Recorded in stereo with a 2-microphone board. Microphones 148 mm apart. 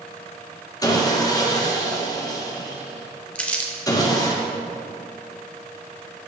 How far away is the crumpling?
About 0.7 m.